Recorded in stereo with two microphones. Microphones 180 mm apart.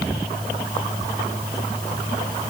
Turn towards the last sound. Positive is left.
No sound to turn to.